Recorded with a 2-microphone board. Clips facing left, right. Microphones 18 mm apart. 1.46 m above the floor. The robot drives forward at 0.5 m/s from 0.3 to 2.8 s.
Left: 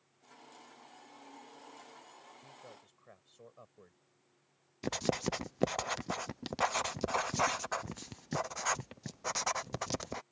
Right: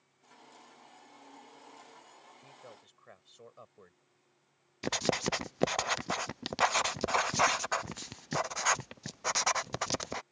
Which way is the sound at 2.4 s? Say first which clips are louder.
Right 1 dB; 30° right (ahead or behind).